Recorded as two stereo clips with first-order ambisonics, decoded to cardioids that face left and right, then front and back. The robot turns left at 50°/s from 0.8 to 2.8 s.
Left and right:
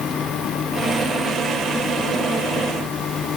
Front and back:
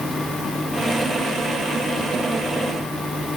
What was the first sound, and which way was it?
Only background noise.